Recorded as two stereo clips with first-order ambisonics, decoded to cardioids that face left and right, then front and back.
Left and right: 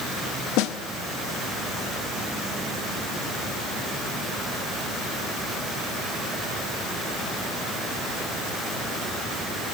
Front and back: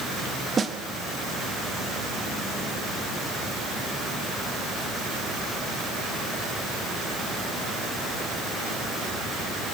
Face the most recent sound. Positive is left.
turn(degrees=105)